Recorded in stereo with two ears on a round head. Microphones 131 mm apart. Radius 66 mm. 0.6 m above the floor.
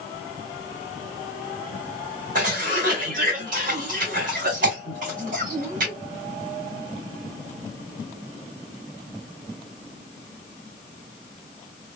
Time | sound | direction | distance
2.4 | a cough | 60° right (ahead or behind) | 2.5 m